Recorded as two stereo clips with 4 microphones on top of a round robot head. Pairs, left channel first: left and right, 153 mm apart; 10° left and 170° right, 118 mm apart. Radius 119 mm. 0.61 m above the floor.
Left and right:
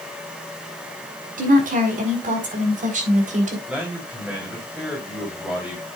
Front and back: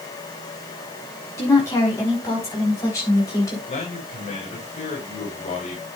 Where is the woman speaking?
60° right, 6 m; by 3.6 s 55° right, 3.5 m.